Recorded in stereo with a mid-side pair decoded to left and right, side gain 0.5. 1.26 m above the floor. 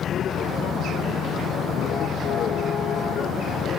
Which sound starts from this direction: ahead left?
A vehicle, at 0.0 s.